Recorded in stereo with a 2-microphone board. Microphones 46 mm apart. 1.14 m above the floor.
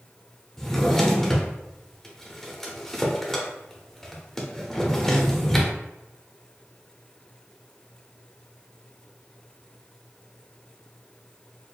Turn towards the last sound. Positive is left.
turn(degrees=10)  # may be behind; listen again after turning